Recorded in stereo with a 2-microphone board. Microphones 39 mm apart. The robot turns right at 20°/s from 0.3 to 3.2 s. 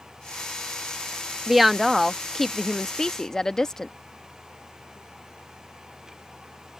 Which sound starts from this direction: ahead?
A woman speaking, at 1.5 s.